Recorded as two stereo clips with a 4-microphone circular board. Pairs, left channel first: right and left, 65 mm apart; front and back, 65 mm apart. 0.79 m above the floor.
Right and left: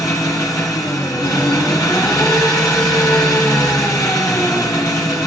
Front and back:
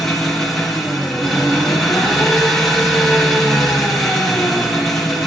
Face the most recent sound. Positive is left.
turn(degrees=-85)